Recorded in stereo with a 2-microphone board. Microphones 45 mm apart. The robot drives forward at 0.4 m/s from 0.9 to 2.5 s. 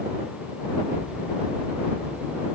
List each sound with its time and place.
Only background noise.